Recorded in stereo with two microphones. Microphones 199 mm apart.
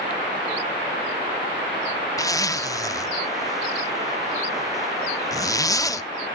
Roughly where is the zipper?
Centre.